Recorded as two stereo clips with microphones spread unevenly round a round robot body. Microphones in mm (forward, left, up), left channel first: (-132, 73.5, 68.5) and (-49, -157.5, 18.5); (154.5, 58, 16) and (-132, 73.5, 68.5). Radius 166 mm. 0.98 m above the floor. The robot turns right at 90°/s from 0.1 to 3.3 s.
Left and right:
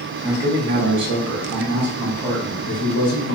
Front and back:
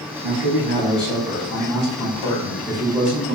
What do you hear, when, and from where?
0.2 s a man speaking: 160° right, 1.1 m; by 3.4 s 120° left, 1.1 m